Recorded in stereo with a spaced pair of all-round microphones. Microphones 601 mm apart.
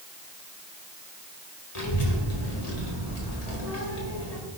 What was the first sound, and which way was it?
A child speaking, 70° left (ahead or behind).